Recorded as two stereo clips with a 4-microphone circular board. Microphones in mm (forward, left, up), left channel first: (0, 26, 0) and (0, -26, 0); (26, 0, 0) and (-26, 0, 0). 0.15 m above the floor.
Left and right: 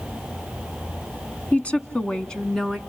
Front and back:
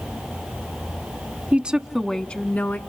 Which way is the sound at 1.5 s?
135° left.